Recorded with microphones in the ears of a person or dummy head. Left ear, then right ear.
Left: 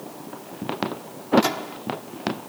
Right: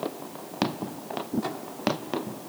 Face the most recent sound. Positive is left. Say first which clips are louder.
# left 8 dB
turn(degrees=75)  # may be behind; listen again after turning